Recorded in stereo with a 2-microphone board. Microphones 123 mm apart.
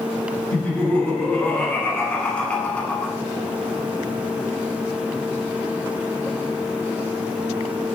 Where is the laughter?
10° left (ahead or behind), 1.2 m.